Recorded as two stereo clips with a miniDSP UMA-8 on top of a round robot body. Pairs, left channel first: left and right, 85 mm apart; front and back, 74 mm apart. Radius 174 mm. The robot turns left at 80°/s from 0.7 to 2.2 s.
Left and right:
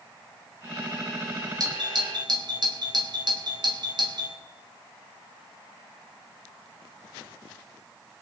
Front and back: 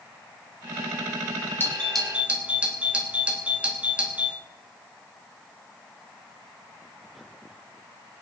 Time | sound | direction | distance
1.6 | a doorbell | 60° right | 2.5 m